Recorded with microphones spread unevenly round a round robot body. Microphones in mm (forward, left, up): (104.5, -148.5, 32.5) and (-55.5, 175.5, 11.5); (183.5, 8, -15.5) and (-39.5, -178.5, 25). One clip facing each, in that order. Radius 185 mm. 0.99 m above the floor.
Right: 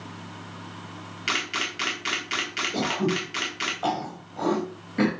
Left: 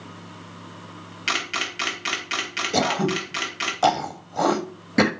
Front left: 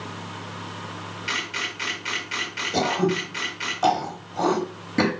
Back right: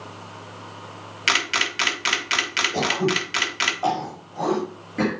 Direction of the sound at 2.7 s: 95° left.